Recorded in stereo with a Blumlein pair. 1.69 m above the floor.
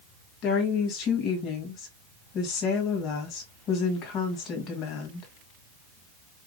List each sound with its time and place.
0.4 s a woman speaking: 35° left, 2 m